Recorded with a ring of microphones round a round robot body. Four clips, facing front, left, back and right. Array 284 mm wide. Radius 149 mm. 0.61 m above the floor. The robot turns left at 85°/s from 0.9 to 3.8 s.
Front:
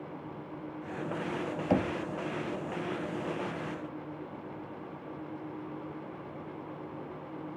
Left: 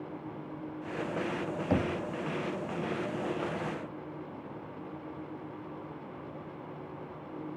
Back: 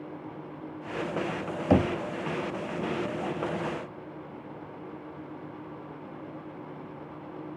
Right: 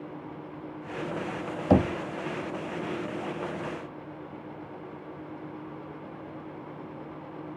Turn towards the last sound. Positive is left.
turn(degrees=60)